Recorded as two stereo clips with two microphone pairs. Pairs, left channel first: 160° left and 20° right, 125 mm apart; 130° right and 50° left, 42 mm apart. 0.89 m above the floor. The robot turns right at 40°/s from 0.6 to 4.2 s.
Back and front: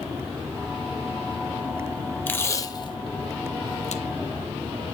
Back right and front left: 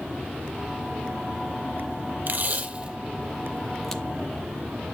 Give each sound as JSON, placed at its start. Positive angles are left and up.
{"t": 2.3, "sound": "tape being pulled", "azimuth_deg": 85, "distance_m": 0.6}